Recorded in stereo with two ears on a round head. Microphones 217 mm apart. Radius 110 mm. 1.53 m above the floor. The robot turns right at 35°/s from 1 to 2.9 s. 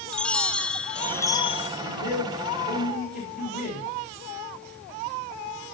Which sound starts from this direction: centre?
A chime, at 0.1 s.